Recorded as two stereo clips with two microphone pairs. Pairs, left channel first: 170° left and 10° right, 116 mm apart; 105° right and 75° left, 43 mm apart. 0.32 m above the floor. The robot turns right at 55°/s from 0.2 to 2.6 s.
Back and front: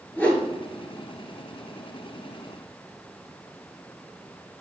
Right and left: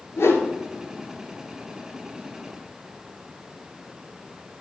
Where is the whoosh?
115° right, 1.8 m; by 0.5 s 100° right, 1.8 m.